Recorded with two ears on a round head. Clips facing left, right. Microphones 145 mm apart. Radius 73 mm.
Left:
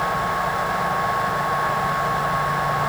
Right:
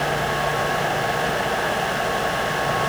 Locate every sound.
Only background noise.